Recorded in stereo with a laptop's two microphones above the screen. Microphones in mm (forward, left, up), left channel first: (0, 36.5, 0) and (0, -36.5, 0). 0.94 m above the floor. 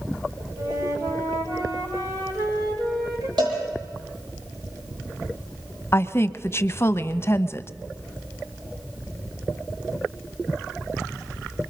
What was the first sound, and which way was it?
A flute, 55° right (ahead or behind).